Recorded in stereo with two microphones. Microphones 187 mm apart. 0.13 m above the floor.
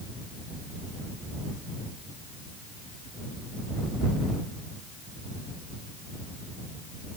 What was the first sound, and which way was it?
Only background noise.